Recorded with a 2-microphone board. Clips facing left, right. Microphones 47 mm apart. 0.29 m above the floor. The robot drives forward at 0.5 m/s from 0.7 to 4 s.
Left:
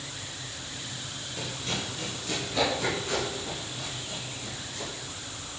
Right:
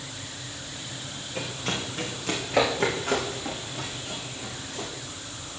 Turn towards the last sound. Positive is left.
turn(degrees=-60)  # may be behind; listen again after turning